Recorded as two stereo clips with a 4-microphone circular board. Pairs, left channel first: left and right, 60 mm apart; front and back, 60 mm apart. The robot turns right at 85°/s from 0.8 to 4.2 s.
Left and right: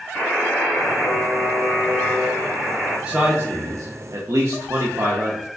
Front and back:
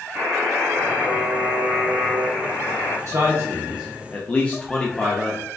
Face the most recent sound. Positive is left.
turn(degrees=-65)